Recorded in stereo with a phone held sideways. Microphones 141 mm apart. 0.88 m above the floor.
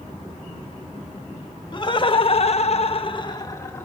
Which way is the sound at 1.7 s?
35° left (ahead or behind).